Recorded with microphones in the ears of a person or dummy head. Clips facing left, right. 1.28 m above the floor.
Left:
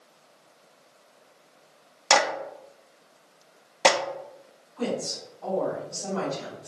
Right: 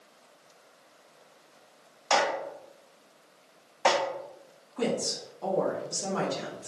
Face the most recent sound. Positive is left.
turn(degrees=-65)  # may be behind; listen again after turning